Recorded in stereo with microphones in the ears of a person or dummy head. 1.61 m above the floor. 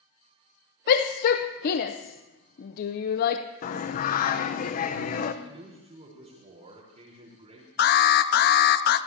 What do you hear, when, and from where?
0.9 s a shout: 50° left (ahead or behind), 0.7 m
3.6 s singing: 50° left (ahead or behind), 0.9 m
5.4 s a man speaking: 25° right (ahead or behind), 4 m
7.8 s an alarm: 45° left (ahead or behind), 0.7 m